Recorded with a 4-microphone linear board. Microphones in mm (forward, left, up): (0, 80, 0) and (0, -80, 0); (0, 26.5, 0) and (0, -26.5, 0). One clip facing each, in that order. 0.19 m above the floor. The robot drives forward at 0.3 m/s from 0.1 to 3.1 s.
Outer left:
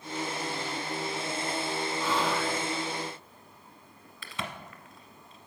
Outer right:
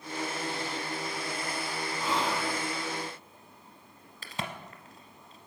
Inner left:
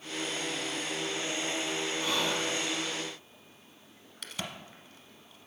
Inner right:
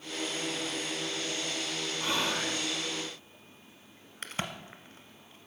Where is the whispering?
20° right (ahead or behind), 1.6 m.